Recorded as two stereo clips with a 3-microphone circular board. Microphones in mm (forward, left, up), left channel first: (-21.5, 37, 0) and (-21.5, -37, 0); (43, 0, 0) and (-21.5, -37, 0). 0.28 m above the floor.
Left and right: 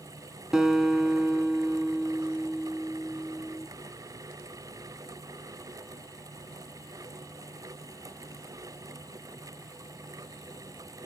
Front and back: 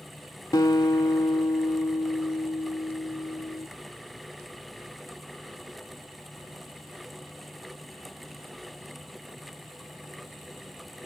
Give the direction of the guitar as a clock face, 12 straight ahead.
12 o'clock.